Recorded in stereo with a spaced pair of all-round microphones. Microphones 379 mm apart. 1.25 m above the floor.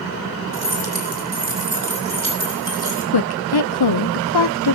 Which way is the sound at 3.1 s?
85° left.